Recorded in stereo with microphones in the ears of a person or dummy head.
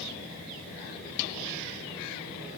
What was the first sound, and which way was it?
Only background noise.